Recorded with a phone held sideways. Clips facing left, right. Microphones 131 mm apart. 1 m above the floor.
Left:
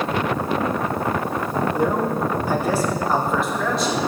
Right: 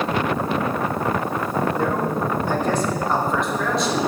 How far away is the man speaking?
About 1.6 m.